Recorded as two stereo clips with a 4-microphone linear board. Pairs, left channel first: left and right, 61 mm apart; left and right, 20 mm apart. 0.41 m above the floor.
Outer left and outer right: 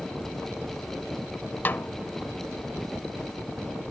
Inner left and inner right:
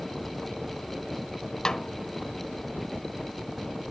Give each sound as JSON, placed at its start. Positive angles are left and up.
{"t": 1.6, "sound": "a snare drum", "side_deg": 35, "distance_m": 0.6}